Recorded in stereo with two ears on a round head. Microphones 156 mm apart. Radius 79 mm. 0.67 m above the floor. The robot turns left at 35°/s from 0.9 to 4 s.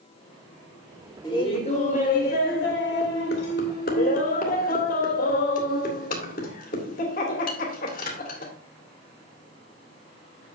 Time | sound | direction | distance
1.2 | laughter | 155° left | 1.9 m